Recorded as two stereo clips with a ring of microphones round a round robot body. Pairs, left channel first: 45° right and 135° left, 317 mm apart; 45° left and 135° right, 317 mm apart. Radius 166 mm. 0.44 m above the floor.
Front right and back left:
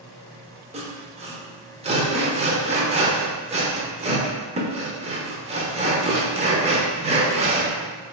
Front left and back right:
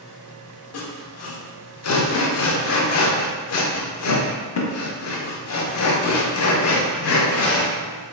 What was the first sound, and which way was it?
Sawing, 70° left.